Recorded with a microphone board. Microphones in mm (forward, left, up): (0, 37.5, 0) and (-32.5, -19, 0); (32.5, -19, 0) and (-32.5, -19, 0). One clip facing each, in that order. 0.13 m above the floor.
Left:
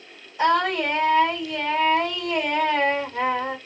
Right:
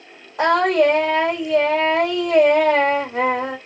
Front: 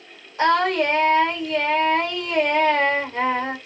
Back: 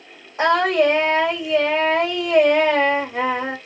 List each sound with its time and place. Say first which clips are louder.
0.4 s singing: right 5 dB, back 2 dB; 115° right, 3 m